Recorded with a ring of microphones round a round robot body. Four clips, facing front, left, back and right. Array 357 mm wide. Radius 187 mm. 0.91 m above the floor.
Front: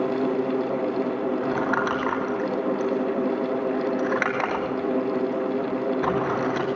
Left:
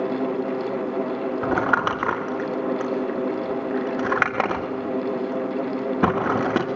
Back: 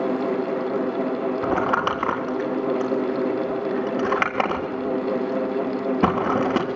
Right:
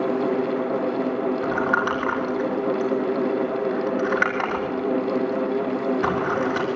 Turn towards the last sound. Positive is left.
turn(degrees=130)